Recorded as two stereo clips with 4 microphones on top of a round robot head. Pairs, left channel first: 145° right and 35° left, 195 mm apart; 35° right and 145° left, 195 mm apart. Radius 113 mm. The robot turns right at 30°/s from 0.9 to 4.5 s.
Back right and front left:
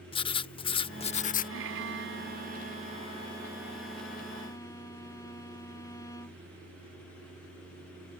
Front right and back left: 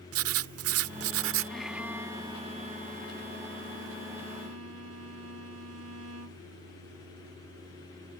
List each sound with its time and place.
0.1 s writing: 150° left; by 1.5 s 170° left
1.5 s a violin: 50° left; by 6.4 s 140° left